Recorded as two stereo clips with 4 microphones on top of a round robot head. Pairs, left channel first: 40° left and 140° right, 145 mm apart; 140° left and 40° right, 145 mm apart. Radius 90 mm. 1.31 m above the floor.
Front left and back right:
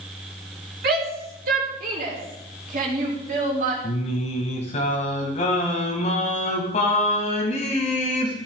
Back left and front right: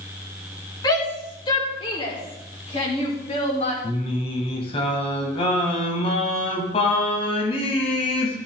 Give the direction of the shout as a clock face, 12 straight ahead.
5 o'clock.